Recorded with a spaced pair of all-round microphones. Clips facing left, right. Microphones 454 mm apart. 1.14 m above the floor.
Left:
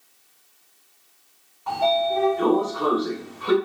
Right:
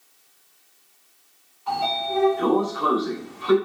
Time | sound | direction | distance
1.7 | a sliding door | 65° left (ahead or behind) | 2 m